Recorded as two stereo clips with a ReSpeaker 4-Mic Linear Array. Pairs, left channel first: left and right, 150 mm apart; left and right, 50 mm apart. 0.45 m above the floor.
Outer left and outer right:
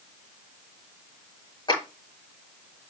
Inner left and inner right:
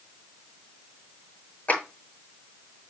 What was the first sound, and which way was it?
A clap, 30° left (ahead or behind).